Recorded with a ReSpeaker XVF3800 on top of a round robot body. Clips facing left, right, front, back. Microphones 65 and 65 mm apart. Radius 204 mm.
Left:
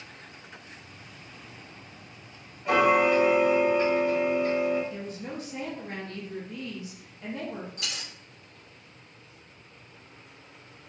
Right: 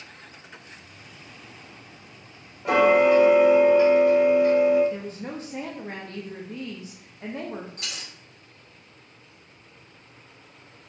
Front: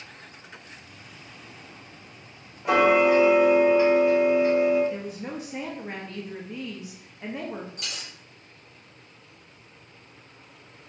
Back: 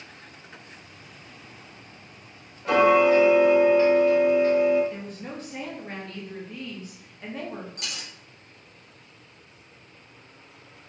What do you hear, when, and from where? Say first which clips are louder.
2.6 s ticking: right 4 dB, back 1 dB; 75° right, 1.1 m
4.9 s a woman speaking: right 3 dB, front 3 dB; 70° right, 0.9 m
7.8 s a dropped coin: even, even; 145° right, 1.8 m